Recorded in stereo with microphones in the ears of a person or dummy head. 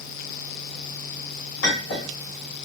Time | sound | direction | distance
1.6 | a clink | 70° left (ahead or behind) | 2.5 m